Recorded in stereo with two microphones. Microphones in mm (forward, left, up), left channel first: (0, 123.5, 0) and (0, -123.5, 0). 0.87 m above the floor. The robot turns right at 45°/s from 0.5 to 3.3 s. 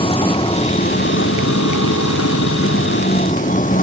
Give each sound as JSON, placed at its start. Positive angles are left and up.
{"t": 0.0, "sound": "a vehicle", "azimuth_deg": 20}